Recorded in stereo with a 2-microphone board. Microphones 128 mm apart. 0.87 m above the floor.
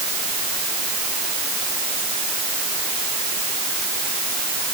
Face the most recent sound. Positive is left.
No sound to turn to.